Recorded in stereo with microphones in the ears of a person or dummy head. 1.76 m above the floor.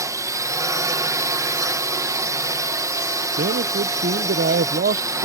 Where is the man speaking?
50° right (ahead or behind).